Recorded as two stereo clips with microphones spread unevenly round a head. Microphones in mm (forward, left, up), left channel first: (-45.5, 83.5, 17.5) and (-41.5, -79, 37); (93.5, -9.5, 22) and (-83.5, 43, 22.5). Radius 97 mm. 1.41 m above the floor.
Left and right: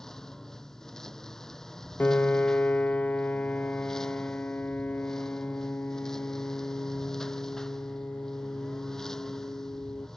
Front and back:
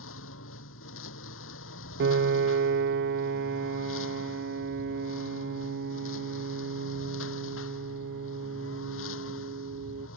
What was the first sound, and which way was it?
A lawn mower, 5° left.